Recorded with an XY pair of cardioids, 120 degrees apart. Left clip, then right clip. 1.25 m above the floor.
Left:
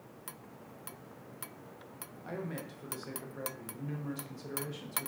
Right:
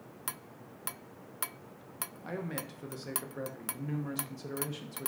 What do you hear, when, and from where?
2.2 s a man speaking: 20° right, 0.7 m